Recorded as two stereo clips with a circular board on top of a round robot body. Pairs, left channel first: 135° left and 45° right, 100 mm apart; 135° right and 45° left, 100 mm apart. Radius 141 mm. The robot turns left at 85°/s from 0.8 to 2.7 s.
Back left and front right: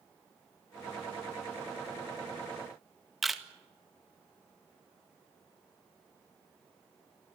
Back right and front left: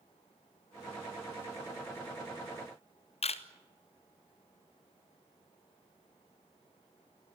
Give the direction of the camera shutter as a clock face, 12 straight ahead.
4 o'clock.